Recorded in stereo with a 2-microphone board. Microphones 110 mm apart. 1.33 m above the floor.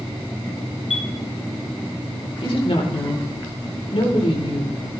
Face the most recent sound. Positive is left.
turn(degrees=65)  # may be behind; listen again after turning